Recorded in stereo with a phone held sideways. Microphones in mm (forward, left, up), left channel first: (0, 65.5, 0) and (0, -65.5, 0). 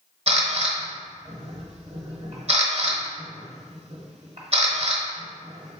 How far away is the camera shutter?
About 0.9 m.